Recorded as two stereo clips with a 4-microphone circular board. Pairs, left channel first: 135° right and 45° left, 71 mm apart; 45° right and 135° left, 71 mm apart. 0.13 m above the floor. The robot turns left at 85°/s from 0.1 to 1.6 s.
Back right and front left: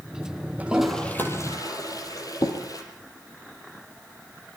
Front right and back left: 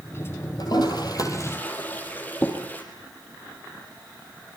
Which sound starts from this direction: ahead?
A toilet flushing, at 0.6 s.